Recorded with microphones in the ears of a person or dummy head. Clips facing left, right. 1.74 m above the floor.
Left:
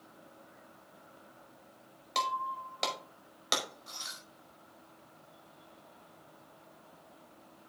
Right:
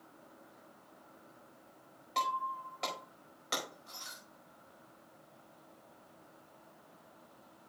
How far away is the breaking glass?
About 4.5 m.